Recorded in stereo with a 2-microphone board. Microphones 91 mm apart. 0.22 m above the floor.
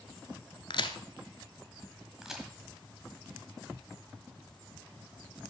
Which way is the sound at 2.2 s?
5° right (ahead or behind).